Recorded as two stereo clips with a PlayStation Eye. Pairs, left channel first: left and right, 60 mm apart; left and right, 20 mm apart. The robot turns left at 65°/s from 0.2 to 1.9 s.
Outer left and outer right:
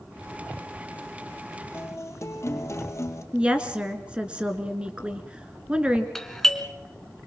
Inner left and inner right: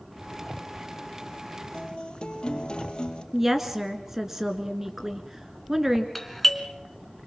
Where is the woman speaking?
15° right (ahead or behind), 1.9 m.